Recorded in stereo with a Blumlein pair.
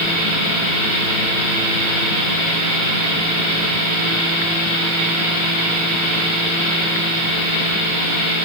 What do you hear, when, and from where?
Only background noise.